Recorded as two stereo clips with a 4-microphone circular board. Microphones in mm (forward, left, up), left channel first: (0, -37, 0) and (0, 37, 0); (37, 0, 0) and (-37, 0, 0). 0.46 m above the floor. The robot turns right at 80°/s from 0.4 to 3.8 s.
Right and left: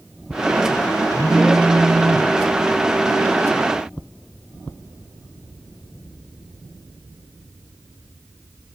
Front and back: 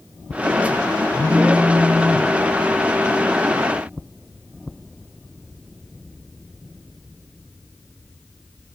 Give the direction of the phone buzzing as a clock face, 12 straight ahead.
1 o'clock.